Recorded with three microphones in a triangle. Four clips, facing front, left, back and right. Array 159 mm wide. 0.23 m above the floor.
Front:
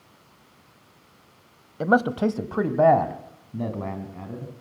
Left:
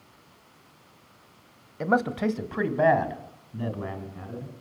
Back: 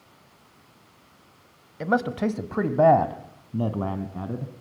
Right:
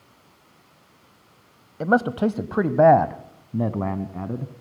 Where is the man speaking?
30° right, 1.2 m; by 4.5 s 115° right, 2 m.